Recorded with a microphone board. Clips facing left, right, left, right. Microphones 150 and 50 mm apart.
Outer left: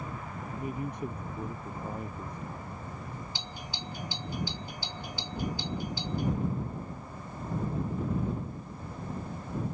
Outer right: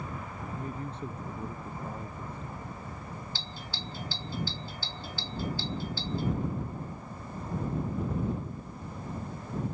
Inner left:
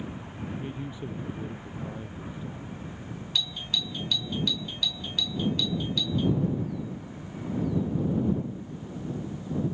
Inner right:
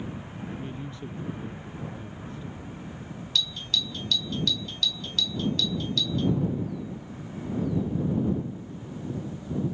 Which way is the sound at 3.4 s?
15° left (ahead or behind).